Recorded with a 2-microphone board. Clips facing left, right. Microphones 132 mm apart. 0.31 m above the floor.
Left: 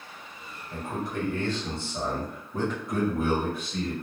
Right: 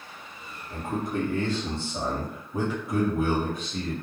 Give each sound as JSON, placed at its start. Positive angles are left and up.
{"t": 0.7, "sound": "a man speaking", "side_deg": -50, "distance_m": 1.5}